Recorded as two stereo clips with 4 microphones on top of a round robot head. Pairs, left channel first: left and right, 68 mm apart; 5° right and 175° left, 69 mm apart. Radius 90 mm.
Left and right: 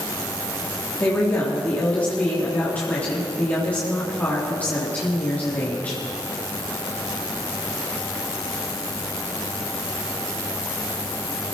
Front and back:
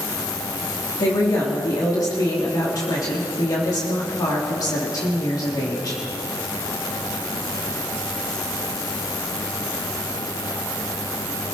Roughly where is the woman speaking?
Ahead.